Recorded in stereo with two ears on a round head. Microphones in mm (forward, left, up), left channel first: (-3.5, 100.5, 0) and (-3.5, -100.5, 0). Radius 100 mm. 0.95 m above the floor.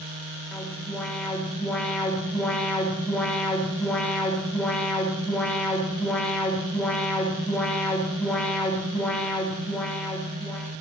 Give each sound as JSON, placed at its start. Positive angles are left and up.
{"t": 0.5, "sound": "an alarm", "side_deg": 5, "distance_m": 6.0}